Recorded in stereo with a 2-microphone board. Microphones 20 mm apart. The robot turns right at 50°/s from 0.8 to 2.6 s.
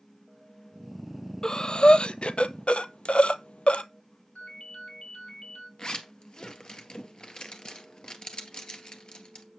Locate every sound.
1.4 s breathing: 35° left (ahead or behind), 0.8 m; by 3.8 s 75° left (ahead or behind), 0.8 m
4.3 s a ringtone: 70° left (ahead or behind), 3 m
5.8 s a zipper: 50° left (ahead or behind), 2 m